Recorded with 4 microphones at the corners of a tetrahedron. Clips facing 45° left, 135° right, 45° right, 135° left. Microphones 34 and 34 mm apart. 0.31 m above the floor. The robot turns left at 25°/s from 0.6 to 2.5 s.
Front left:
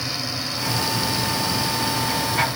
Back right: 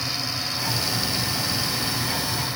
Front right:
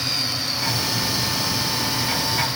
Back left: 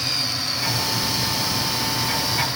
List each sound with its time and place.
Only background noise.